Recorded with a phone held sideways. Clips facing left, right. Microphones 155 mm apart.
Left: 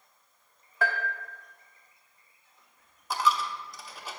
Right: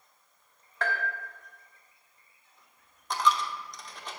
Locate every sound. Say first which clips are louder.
0.8 s a bell: left 2 dB; 5° left (ahead or behind), 0.9 m
3.1 s a dropped coin: even; 5° left (ahead or behind), 0.6 m